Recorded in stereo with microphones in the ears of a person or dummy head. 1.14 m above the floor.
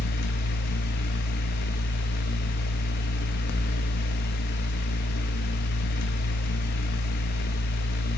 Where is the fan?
55° left (ahead or behind), 0.8 m.